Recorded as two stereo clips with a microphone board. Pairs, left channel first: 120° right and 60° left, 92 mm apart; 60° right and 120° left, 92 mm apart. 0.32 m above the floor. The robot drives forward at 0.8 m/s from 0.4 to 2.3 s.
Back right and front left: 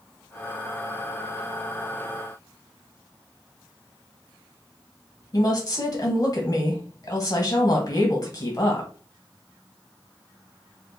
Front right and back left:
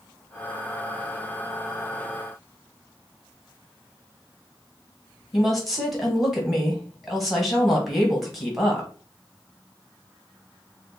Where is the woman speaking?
150° right, 1.6 m.